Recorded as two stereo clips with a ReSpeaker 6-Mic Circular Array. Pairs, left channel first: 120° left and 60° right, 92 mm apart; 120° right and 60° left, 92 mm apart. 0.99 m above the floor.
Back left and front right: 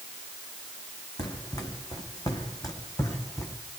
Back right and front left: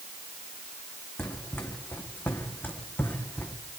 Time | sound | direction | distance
1.2 | running footsteps | 170° left | 4 m